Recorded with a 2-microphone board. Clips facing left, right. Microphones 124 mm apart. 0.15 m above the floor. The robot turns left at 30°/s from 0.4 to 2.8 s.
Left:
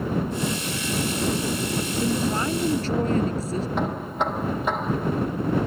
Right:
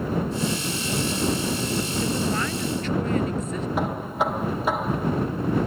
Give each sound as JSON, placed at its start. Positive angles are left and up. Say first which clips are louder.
{"t": 2.0, "sound": "a woman speaking", "louder": "left 4 dB", "side_deg": 15}
{"t": 3.8, "sound": "knocking", "louder": "right 3 dB", "side_deg": -5}